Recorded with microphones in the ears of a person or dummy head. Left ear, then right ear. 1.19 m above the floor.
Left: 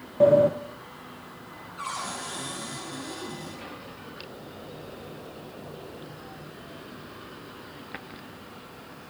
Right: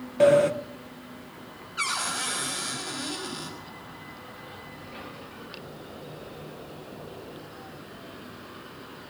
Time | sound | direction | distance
0.2 | a sliding door | 65° right (ahead or behind) | 1.1 m
1.8 | a cupboard door | 60° right (ahead or behind) | 6 m